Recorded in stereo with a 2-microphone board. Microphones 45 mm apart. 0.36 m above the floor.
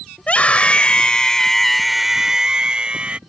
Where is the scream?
30° left (ahead or behind); by 3.2 s 25° right (ahead or behind).